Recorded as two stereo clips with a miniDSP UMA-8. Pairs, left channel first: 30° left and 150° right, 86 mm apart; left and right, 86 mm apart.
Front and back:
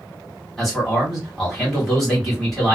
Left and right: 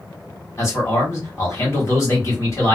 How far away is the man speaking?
About 1.6 m.